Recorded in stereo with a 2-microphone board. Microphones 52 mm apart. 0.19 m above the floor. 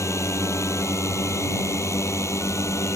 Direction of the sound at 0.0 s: 65° left (ahead or behind).